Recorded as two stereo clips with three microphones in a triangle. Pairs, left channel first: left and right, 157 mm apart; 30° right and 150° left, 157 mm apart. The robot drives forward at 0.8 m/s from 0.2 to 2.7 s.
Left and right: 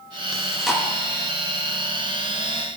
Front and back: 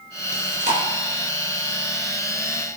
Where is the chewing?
Straight behind, 1.4 m.